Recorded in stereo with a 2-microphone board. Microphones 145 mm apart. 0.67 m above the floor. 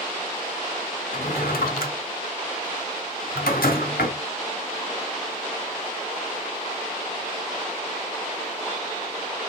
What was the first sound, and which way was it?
A drawer, 85° left.